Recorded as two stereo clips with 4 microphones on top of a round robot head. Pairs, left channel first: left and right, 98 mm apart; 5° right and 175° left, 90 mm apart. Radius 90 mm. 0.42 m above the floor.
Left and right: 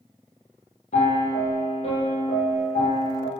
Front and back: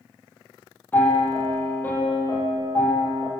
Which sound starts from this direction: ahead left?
A piano, at 0.9 s.